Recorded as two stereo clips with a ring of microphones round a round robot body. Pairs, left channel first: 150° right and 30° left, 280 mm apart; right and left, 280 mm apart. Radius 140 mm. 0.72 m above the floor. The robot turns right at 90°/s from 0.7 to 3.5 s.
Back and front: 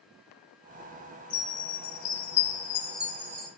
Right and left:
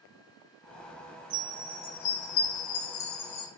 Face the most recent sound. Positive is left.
turn(degrees=-10)